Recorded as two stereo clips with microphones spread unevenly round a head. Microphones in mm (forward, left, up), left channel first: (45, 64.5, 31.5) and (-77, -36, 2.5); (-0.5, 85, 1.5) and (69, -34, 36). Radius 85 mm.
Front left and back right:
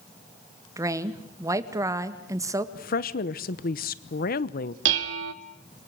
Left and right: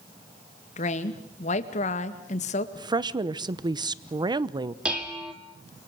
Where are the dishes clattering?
145° right, 1.6 m.